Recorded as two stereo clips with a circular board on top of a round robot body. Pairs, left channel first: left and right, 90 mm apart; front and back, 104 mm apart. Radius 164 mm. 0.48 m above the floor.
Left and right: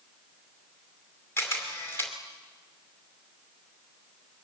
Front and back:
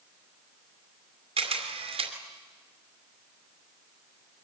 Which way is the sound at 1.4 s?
155° left.